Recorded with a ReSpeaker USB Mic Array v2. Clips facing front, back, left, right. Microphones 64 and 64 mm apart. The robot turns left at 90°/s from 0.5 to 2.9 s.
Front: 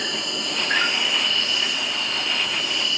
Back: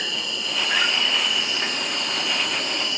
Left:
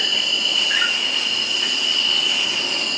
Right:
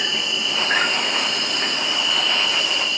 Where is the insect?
25° right, 0.8 m; by 3.0 s 120° left, 0.8 m.